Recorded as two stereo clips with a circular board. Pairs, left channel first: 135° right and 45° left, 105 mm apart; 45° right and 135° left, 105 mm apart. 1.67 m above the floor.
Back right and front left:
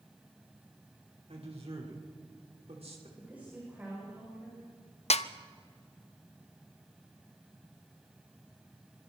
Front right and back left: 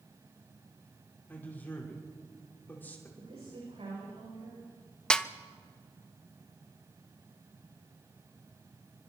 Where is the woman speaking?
120° left, 8.5 m.